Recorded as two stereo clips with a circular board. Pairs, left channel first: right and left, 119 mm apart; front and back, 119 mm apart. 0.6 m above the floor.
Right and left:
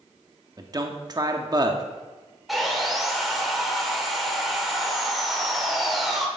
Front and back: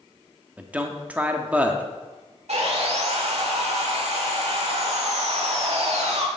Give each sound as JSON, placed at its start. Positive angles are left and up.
{"t": 0.6, "sound": "a man speaking", "azimuth_deg": 110, "distance_m": 0.7}
{"t": 2.5, "sound": "sawing", "azimuth_deg": 180, "distance_m": 1.2}